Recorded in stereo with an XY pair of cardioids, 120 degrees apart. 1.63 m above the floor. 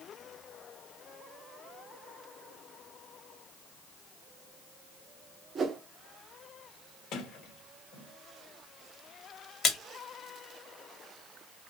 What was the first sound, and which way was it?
A whoosh, 40° right.